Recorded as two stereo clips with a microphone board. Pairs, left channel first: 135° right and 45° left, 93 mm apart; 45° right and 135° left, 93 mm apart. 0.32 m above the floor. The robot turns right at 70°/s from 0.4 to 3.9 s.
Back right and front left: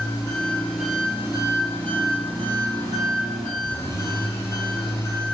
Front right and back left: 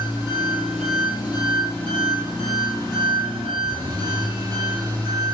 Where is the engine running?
80° right, 3.5 m; by 5.3 s 165° left, 3.5 m.